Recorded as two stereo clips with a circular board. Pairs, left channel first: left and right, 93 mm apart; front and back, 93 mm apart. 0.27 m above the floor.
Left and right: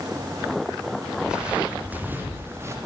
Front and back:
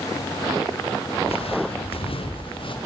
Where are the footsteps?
10° right, 5 m; by 2.8 s 30° right, 5 m.